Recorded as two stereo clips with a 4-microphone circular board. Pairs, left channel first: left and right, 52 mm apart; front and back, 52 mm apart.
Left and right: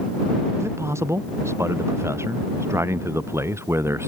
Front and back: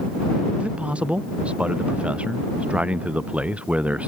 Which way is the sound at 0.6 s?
115° right.